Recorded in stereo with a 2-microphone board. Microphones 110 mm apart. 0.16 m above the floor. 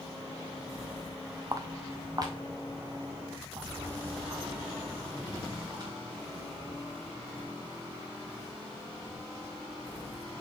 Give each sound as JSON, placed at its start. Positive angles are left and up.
{"t": 1.5, "sound": "footsteps", "side_deg": -35, "distance_m": 0.8}